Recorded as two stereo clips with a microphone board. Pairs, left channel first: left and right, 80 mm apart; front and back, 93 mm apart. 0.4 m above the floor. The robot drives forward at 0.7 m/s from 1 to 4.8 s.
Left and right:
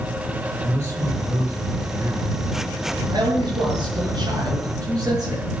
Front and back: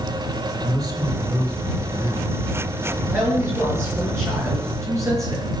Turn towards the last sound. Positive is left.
turn(degrees=-125)